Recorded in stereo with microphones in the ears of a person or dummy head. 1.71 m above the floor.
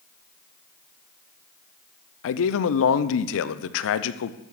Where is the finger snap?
No finger snap in this recording.